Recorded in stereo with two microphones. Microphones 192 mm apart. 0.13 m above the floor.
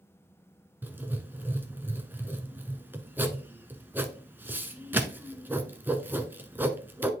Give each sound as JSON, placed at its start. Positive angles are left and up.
{"t": 0.8, "sound": "writing", "side_deg": -10, "distance_m": 0.8}